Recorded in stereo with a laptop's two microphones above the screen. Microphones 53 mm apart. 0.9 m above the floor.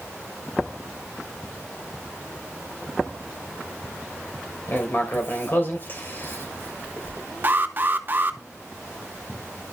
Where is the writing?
40° left (ahead or behind), 3 m.